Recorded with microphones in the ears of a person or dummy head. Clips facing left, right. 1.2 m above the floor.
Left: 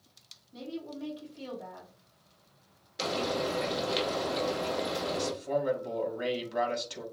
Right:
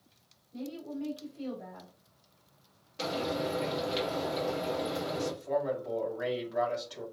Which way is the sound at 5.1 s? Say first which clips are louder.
Even; 35° left (ahead or behind).